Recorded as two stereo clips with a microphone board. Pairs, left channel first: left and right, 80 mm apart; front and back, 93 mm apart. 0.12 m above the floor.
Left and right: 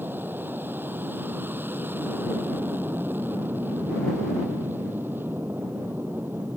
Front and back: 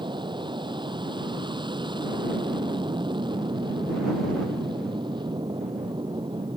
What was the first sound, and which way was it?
An aircraft, 155° right.